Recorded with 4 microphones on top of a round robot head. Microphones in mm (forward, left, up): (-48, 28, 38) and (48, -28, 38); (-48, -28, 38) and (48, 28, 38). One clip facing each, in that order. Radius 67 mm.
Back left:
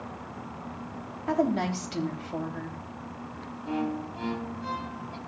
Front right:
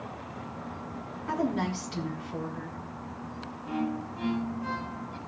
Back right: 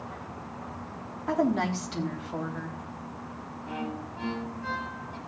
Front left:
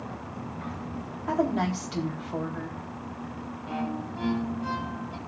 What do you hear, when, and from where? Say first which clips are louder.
1.3 s a woman speaking: back left 3 dB, even; 115° left, 3 m
3.6 s a violin: back left 1 dB, front left 3 dB; 95° left, 1.3 m